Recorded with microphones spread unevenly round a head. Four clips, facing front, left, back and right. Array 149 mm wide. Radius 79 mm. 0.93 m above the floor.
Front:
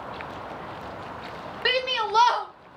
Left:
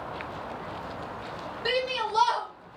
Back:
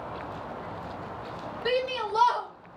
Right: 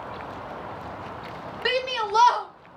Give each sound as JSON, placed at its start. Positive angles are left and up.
{"t": 1.6, "sound": "a shout", "azimuth_deg": -30, "distance_m": 0.9}